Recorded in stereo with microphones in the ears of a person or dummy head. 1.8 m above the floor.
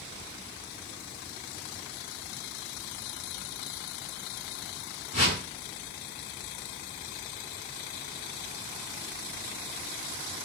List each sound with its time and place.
5.1 s a whoosh: 30° left (ahead or behind), 1.7 m